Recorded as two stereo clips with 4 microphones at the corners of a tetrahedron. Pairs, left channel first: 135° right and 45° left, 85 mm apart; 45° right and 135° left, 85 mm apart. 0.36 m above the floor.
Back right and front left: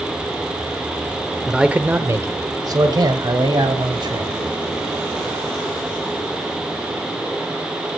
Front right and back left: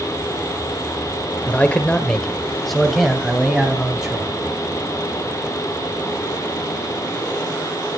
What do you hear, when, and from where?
1.5 s a man speaking: 30° right, 0.9 m; by 4.4 s 55° left, 2.5 m